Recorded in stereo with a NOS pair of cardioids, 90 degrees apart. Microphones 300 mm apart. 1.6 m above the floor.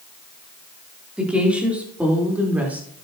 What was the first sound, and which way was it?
A woman speaking, 5° right.